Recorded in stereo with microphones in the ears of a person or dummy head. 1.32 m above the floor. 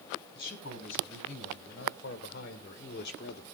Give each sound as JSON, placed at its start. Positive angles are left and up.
{"t": 0.3, "sound": "a man speaking", "side_deg": 60, "distance_m": 3.0}